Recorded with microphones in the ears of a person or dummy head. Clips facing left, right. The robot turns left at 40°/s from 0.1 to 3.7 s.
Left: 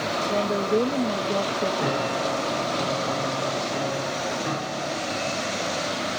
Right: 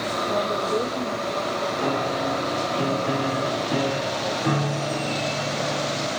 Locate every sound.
0.3 s a woman speaking: 175° left, 1.5 m; by 1.7 s 120° left, 1.5 m
1.8 s a piano: 20° left, 4 m; by 6.1 s 55° right, 4 m